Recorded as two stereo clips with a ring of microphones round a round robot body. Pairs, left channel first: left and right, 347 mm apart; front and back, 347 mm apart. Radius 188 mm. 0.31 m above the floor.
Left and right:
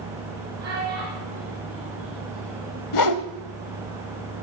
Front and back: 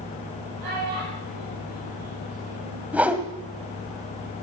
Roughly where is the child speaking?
Behind right.